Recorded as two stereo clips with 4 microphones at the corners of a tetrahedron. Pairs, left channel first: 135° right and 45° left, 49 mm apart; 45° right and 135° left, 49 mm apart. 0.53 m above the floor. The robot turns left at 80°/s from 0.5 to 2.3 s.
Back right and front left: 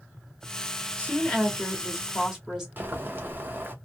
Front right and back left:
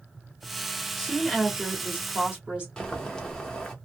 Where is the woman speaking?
140° right, 1.2 m; by 2.7 s 115° left, 1.2 m.